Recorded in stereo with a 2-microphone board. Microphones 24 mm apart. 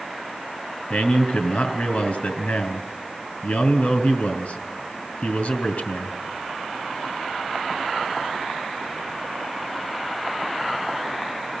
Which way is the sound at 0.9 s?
65° left (ahead or behind).